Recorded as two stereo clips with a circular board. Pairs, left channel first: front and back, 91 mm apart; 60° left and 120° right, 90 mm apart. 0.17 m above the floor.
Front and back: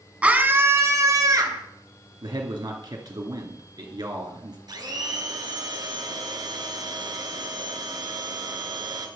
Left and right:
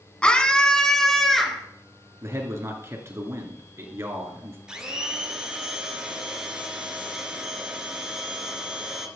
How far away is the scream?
About 1.6 m.